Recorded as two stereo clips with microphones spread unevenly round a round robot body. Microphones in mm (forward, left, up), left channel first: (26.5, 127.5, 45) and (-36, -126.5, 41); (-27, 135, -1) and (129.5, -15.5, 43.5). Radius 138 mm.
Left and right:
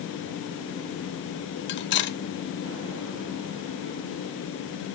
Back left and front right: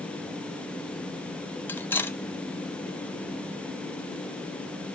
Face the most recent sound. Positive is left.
turn(degrees=75)